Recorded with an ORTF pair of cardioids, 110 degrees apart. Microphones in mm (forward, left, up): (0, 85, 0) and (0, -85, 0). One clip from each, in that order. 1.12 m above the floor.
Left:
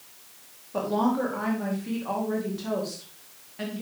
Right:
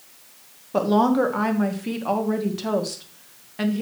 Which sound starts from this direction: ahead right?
A woman speaking, at 0.7 s.